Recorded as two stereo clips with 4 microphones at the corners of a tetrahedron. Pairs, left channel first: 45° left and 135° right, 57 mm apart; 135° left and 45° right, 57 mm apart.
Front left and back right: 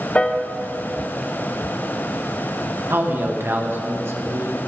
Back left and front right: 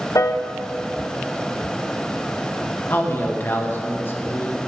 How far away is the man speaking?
About 1.6 m.